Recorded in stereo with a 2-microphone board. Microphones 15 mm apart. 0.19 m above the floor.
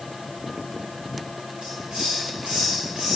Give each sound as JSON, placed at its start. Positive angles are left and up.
{"t": 1.6, "sound": "a hiss", "side_deg": -90, "distance_m": 2.5}